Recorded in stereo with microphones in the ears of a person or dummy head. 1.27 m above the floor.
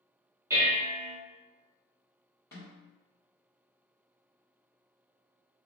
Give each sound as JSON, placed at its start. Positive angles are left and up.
{"t": 0.5, "sound": "dishes clattering", "side_deg": -15, "distance_m": 1.5}
{"t": 2.5, "sound": "a snare drum", "side_deg": 10, "distance_m": 1.7}